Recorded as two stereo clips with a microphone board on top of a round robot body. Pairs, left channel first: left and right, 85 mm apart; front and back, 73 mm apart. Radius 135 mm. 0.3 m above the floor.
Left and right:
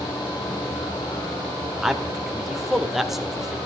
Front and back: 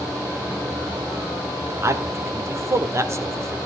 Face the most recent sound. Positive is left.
turn(degrees=-175)